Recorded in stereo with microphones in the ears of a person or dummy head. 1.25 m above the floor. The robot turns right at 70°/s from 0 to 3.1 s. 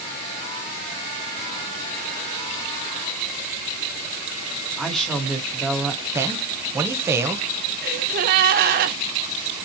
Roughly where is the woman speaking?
Centre.